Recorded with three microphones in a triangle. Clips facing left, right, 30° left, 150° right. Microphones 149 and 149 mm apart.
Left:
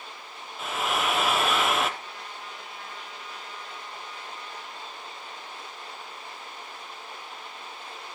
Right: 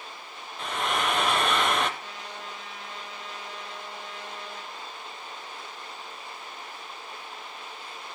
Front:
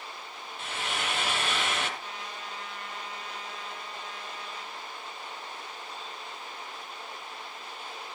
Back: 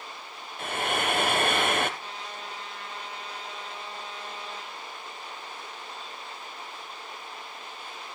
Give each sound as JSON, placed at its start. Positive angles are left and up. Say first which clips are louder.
{"t": 0.6, "sound": "frying", "louder": "even, back 6 dB", "azimuth_deg": 175, "distance_m": 1.4}
{"t": 2.0, "sound": "a trumpet", "louder": "right 1 dB, back 1 dB", "azimuth_deg": -90, "distance_m": 5.5}